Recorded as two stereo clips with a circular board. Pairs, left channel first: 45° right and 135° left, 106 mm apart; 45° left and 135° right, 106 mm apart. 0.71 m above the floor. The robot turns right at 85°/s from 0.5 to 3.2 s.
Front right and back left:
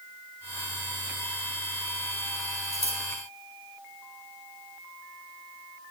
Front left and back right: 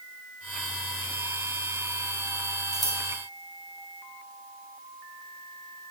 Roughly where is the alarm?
No alarm in this recording.